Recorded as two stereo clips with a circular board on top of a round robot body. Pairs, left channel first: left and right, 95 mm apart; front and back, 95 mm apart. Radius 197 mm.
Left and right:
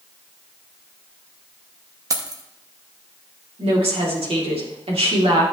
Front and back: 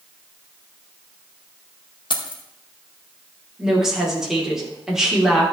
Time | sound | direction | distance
2.1 | keys jangling | 35° right | 1.1 m
3.6 | a woman speaking | 95° right | 3 m